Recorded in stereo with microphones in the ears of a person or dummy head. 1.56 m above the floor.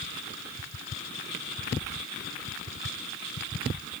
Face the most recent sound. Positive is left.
No sound to turn to.